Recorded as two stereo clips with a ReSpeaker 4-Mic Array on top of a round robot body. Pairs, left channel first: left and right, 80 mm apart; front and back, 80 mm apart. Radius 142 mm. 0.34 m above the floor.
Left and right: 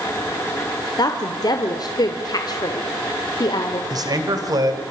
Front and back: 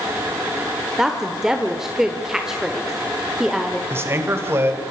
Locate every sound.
1.0 s a woman speaking: 100° left, 1.6 m
3.9 s a man speaking: 125° right, 2.5 m